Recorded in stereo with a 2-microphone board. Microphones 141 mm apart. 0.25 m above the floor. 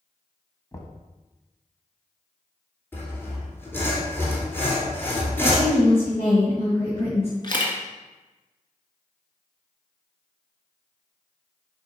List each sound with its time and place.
0.7 s knocking: 25° left (ahead or behind), 0.9 m
2.9 s sawing: 15° left (ahead or behind), 2.5 m
5.4 s a woman speaking: 45° left (ahead or behind), 2 m
7.4 s a camera shutter: 35° left (ahead or behind), 1.3 m